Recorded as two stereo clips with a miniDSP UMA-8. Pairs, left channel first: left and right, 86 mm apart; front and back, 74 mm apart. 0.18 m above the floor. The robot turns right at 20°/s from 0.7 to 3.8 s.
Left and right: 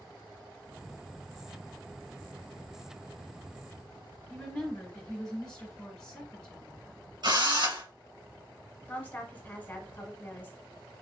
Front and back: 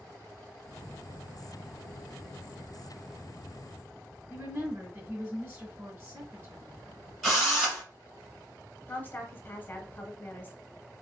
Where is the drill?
95° right, 2.5 m.